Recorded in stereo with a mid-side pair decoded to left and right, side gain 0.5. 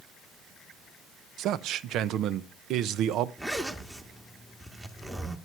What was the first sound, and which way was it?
A man speaking, 70° right.